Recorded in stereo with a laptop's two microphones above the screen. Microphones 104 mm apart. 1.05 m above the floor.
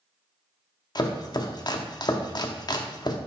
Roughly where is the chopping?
Left.